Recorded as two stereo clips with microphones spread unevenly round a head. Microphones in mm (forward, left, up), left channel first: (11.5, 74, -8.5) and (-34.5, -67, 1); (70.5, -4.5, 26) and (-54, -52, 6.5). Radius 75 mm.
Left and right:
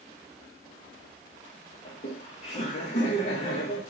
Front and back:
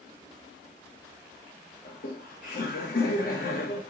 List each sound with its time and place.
1.9 s laughter: 25° left, 1.7 m